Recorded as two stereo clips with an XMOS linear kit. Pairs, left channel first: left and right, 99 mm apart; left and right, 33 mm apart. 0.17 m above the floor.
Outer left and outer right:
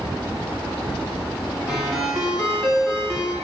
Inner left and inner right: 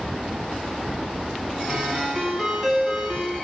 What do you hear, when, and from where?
1.7 s a ringtone: 5° right (ahead or behind), 1.2 m